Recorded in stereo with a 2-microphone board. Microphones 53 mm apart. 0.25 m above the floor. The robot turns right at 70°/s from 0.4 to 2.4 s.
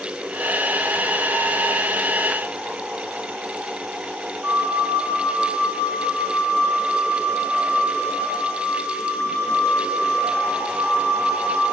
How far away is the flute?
About 2.5 m.